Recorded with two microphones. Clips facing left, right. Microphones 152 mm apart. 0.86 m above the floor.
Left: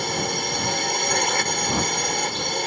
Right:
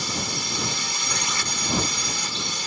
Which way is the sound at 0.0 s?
55° left (ahead or behind).